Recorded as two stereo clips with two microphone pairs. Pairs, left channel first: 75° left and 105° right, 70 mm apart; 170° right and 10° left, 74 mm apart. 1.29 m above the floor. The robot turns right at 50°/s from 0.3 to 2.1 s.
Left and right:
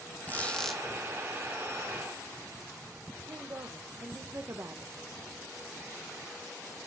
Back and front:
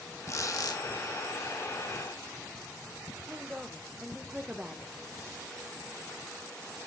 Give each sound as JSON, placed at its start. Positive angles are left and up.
{"t": 0.3, "sound": "a squeak", "azimuth_deg": 140, "distance_m": 1.1}
{"t": 3.3, "sound": "a woman speaking", "azimuth_deg": -70, "distance_m": 0.8}